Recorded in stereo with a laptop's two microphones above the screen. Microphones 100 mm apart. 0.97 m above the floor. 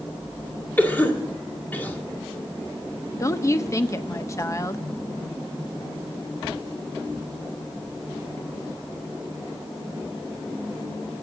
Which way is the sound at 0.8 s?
20° left (ahead or behind).